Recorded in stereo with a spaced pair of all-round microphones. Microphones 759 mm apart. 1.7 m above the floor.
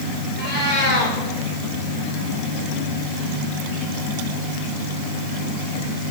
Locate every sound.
0.4 s a cat meowing: 15° right (ahead or behind), 3.5 m